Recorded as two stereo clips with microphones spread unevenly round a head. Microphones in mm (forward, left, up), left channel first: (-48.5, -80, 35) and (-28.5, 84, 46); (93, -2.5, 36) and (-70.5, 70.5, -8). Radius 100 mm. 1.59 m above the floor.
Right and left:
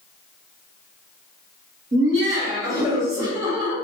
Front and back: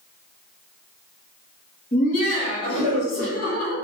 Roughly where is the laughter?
Ahead left.